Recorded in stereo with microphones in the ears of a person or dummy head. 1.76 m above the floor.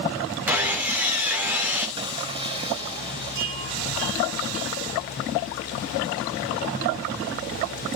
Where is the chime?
70° right (ahead or behind), 3 m.